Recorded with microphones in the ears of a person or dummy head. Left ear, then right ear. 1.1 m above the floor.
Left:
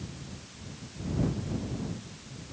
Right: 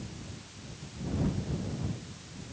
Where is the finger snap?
No finger snap in this recording.